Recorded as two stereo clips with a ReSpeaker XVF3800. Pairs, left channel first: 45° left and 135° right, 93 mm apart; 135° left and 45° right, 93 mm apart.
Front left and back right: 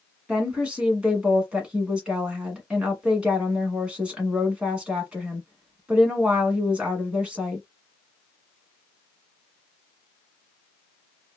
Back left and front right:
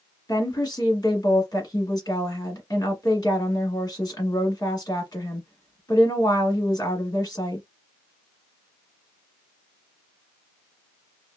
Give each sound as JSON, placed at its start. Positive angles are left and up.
{"t": 0.3, "sound": "a woman speaking", "azimuth_deg": 150, "distance_m": 1.4}